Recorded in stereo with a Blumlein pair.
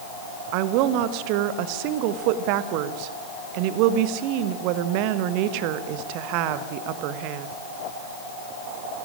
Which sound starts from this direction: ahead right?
A woman speaking, at 0.5 s.